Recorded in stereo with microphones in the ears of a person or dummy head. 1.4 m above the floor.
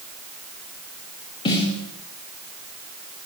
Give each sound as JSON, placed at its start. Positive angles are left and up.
{"t": 1.4, "sound": "a snare drum", "side_deg": 25, "distance_m": 2.0}